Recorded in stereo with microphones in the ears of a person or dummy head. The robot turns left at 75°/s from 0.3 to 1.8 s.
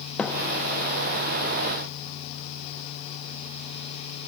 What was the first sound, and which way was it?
A thud, 10° left (ahead or behind).